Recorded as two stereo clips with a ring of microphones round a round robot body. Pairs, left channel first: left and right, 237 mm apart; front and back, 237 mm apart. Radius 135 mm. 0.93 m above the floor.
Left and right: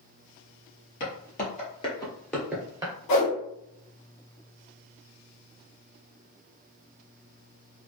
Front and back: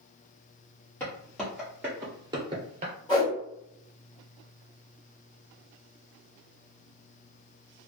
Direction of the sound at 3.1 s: 75° left.